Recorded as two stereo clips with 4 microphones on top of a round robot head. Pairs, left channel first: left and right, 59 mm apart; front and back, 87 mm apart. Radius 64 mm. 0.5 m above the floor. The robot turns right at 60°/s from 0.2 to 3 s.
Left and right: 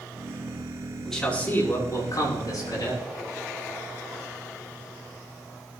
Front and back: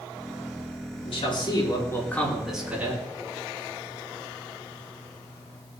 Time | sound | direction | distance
1.0 | a man speaking | 5° left | 7 m